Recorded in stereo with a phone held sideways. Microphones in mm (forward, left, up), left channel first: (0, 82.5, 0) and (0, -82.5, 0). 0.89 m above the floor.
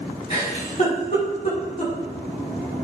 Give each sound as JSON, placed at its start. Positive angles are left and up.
{"t": 0.3, "sound": "a giggle", "side_deg": 45, "distance_m": 6.5}